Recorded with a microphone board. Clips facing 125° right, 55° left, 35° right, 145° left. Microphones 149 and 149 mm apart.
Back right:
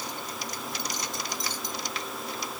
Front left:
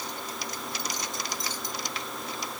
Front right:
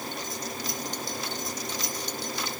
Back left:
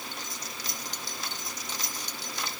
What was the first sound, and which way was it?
Only background noise.